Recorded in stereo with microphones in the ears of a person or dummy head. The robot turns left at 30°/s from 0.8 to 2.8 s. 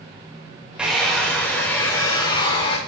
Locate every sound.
0.8 s a hair dryer: 170° right, 1.1 m; by 2.8 s 130° left, 1.1 m